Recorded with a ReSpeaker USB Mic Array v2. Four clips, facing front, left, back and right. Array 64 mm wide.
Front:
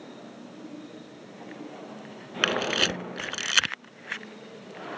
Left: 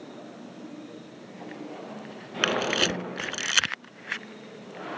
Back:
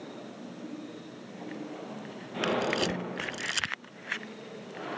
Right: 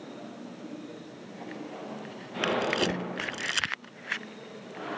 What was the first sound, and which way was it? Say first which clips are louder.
A camera shutter: left 1 dB, front 2 dB; 30° left.